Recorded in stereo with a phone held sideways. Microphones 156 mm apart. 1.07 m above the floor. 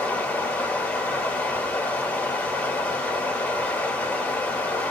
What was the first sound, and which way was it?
Running water, 5° left (ahead or behind).